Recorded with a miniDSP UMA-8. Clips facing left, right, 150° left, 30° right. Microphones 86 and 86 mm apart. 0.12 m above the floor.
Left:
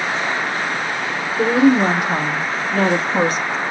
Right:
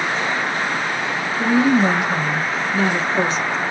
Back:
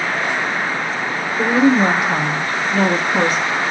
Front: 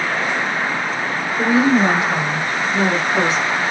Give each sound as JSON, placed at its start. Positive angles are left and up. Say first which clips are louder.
{"t": 1.4, "sound": "a woman speaking", "louder": "left 2 dB, back 1 dB", "azimuth_deg": 105, "distance_m": 4.5}